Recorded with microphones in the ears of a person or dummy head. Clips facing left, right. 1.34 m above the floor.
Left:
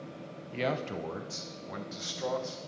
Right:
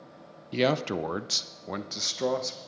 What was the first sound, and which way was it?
A man speaking, 55° right (ahead or behind).